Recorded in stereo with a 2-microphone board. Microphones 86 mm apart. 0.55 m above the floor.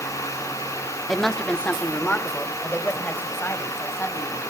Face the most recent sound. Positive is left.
turn(degrees=30)  # may be behind; listen again after turning